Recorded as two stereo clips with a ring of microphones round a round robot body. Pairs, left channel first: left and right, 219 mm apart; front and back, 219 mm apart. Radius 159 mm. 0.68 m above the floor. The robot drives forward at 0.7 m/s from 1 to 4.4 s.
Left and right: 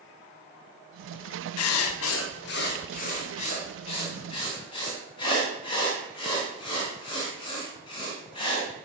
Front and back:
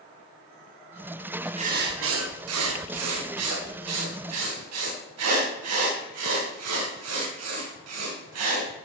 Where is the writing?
110° left, 0.6 m; by 8.7 s 165° left, 2.5 m.